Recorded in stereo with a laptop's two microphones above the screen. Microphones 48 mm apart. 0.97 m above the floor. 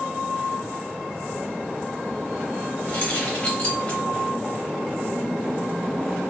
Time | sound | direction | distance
2.9 | keys jangling | 25° left (ahead or behind) | 1.6 m